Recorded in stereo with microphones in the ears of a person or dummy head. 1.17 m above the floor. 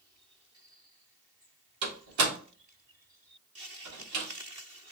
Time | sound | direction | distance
1.8 | a door slam | 90° right | 1.4 m